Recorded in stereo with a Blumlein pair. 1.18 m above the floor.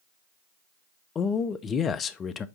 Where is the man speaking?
25° left, 0.6 m.